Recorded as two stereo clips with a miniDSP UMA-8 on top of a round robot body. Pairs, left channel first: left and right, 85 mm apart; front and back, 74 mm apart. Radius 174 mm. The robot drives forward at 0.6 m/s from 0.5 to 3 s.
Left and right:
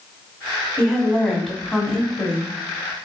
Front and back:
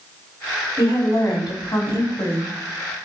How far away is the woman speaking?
About 2 m.